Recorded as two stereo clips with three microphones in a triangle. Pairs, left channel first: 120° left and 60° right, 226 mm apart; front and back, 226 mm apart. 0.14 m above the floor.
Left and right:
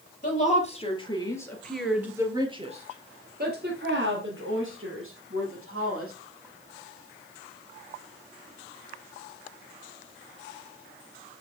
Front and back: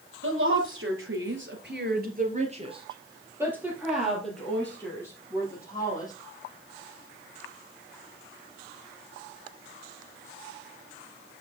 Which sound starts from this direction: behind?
A woman speaking, at 0.2 s.